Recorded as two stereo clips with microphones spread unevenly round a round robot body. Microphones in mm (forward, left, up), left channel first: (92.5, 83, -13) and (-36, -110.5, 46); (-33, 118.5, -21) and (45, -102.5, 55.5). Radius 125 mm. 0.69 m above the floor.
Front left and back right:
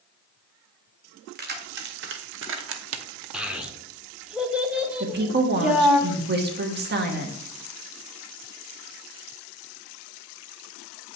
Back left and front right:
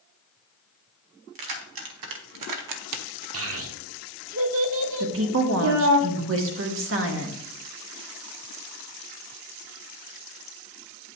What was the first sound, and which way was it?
Keys jangling, 70° right.